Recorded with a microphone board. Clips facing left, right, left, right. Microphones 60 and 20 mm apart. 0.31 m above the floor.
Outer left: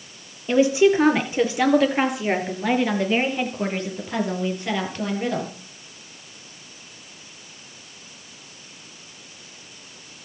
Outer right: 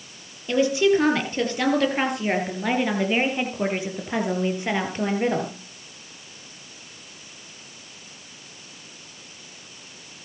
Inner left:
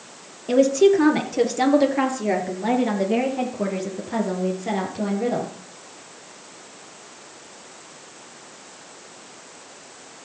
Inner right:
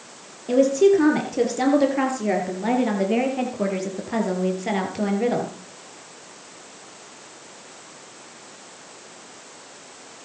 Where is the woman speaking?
20° left (ahead or behind), 6 m; by 5.5 s 30° right (ahead or behind), 6 m.